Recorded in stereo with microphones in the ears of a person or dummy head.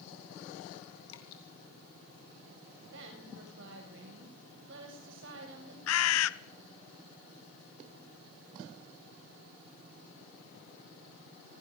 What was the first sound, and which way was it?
Dripping, 80° left.